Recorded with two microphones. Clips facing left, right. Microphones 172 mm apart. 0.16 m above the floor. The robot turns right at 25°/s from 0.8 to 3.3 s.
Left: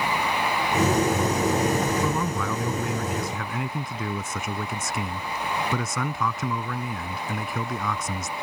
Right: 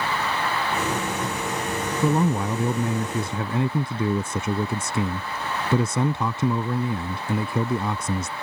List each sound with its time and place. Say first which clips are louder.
2.0 s a man speaking: right 5 dB; 90° right; by 8.3 s 55° right